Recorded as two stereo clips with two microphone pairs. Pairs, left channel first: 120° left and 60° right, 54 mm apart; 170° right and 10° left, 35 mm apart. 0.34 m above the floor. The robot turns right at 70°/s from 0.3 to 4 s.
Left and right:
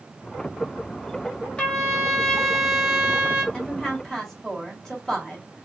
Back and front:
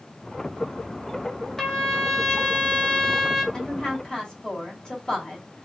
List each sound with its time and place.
1.6 s a trumpet: 130° left, 1.0 m; by 3.4 s 100° right, 1.0 m
3.5 s a woman speaking: 155° left, 1.4 m; by 5.7 s 175° right, 1.4 m